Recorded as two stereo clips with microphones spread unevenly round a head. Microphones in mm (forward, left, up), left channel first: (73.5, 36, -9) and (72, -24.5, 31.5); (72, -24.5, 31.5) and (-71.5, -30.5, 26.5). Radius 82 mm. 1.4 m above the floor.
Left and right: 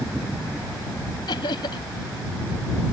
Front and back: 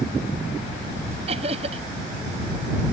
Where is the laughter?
125° left.